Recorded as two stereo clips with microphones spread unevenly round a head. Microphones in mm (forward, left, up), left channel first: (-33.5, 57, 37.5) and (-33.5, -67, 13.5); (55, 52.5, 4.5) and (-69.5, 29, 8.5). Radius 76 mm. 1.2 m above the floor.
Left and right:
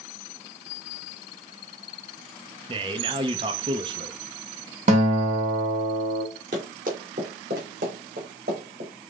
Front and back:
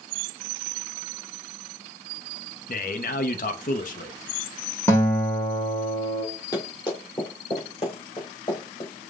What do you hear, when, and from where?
2.7 s a man speaking: 35° right, 0.6 m
4.9 s a guitar: 65° right, 1.6 m
6.5 s running footsteps: 50° right, 1.9 m; by 8.9 s 55° right, 3.5 m